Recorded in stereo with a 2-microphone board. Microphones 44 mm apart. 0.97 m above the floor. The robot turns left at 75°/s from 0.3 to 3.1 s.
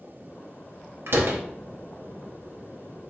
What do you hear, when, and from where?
1.1 s a door slam: 70° right (ahead or behind), 0.7 m; by 1.4 s 85° right, 0.7 m